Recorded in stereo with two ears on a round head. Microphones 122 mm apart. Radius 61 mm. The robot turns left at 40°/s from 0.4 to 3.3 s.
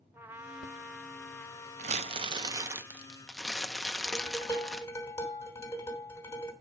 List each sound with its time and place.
0.1 s a trumpet: 160° right, 0.7 m; by 2.8 s 105° left, 0.7 m
1.8 s crumpling: 125° right, 0.7 m; by 4.9 s 175° left, 0.7 m
4.0 s dishes clattering: 20° left (ahead or behind), 2.5 m